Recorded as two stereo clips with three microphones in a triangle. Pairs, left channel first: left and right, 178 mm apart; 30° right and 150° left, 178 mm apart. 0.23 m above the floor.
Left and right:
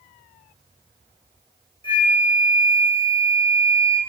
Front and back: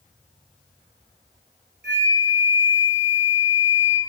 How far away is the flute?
About 1.2 m.